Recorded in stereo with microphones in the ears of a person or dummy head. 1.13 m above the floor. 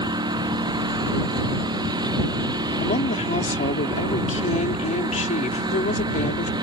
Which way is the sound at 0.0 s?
25° right (ahead or behind).